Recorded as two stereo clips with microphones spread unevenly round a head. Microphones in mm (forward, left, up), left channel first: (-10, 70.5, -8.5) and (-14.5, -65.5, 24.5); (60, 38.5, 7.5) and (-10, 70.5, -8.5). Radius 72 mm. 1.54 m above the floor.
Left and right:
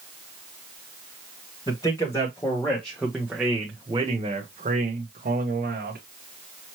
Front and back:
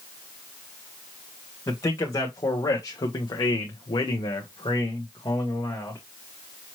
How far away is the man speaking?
About 1.5 m.